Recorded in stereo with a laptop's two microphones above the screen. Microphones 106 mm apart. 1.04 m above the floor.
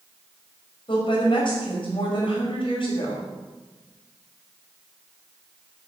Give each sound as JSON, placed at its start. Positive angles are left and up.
{"t": 0.9, "sound": "a woman speaking", "side_deg": 50, "distance_m": 5.5}